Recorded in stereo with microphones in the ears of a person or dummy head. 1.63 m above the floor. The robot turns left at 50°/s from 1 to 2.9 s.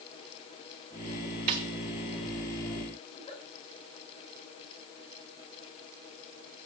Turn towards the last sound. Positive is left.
turn(degrees=30)  # may be behind; listen again after turning